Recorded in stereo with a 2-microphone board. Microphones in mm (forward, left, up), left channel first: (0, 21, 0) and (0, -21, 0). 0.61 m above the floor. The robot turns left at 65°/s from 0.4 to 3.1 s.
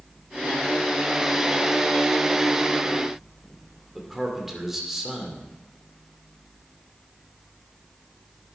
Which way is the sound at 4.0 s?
5° right (ahead or behind).